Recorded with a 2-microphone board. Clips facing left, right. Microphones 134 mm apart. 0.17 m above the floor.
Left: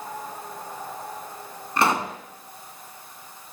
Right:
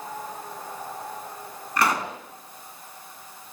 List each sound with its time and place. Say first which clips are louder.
1.8 s a pop: left 2 dB; 25° left (ahead or behind), 1.7 m